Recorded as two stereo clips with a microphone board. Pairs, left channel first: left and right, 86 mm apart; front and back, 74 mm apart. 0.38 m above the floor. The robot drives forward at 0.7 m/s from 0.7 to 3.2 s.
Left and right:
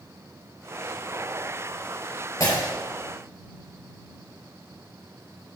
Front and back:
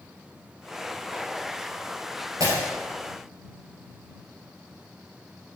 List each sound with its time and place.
2.4 s breaking glass: 140° left, 2.5 m